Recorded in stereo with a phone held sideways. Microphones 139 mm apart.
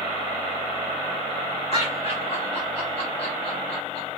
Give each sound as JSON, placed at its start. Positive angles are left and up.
{"t": 1.7, "sound": "laughter", "side_deg": 45, "distance_m": 1.4}